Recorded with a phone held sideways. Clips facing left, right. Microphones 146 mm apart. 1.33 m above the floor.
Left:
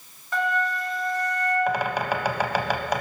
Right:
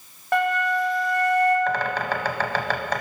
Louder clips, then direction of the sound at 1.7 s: Even; 10° left (ahead or behind).